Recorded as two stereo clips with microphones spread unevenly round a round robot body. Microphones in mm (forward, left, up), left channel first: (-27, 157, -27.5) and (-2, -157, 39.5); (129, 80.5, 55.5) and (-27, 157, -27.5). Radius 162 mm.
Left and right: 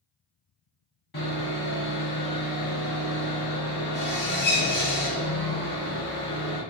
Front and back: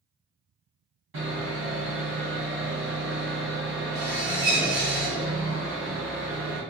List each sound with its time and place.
1.1 s sawing: 160° left, 1.6 m